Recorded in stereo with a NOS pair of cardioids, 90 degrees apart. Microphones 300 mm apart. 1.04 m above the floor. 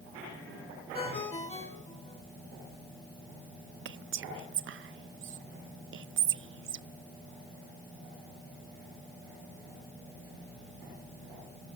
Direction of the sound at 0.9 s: 20° left.